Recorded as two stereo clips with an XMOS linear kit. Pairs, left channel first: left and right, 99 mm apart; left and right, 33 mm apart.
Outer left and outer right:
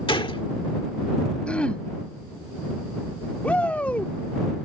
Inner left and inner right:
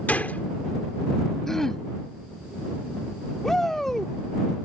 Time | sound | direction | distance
0.1 | a gunshot | 60° left (ahead or behind) | ?
1.5 | throat clearing | 10° left (ahead or behind) | ?
3.4 | a shout | 15° left (ahead or behind) | ?